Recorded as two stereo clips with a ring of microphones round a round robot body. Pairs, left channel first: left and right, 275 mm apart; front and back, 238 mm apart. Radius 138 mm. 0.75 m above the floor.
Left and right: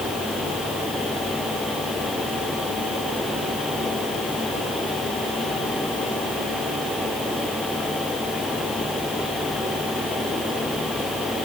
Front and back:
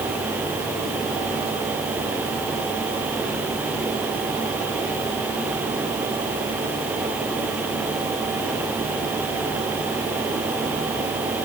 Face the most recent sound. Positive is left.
No sound to turn to.